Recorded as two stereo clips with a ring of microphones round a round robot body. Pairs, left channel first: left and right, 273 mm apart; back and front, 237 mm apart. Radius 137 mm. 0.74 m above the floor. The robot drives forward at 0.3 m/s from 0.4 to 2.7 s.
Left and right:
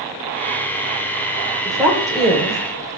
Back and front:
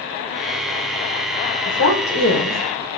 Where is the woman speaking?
Straight behind, 2.5 m.